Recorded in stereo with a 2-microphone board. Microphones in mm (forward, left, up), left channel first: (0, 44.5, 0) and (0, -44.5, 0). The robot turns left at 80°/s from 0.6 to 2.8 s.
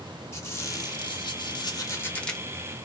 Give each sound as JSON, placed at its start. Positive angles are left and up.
{"t": 0.3, "sound": "a squeak", "azimuth_deg": 145, "distance_m": 1.4}